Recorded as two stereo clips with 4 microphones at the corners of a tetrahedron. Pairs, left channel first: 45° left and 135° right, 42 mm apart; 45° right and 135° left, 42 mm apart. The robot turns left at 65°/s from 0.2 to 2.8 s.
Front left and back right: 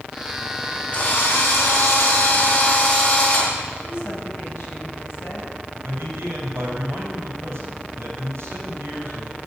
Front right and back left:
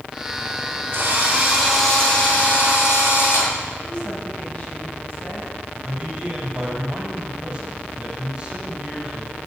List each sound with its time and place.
0.9 s a drill: 110° left, 6 m; by 3.5 s 15° right, 6 m
3.8 s a woman speaking: 10° left, 6.5 m
5.8 s a man speaking: 160° right, 6 m